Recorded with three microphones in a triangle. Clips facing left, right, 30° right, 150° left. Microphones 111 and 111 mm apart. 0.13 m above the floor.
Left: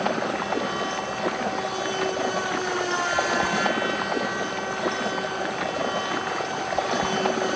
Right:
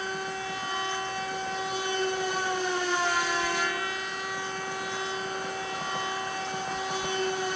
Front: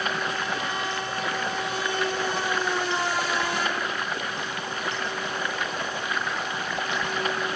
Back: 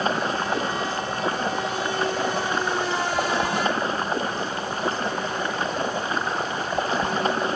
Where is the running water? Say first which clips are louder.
Left 8 dB, back 5 dB; 95° left.